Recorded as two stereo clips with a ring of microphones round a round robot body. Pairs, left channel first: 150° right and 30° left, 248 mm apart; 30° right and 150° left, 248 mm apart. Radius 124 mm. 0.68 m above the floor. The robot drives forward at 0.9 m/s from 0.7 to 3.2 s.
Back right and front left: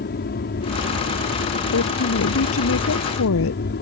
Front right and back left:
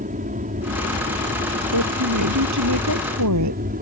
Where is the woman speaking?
170° left.